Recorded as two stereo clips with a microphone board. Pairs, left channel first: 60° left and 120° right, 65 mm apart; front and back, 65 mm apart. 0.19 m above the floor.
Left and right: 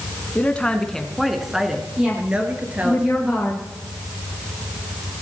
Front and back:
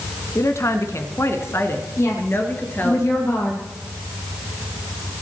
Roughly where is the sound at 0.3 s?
Ahead.